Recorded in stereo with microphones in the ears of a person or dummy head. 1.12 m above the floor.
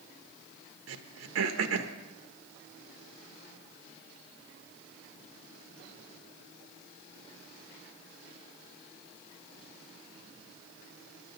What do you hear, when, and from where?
0.9 s throat clearing: 75° right (ahead or behind), 0.8 m